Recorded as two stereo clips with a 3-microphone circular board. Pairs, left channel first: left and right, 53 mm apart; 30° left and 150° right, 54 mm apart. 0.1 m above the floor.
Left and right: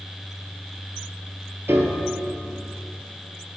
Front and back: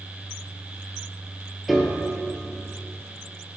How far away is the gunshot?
No gunshot in this recording.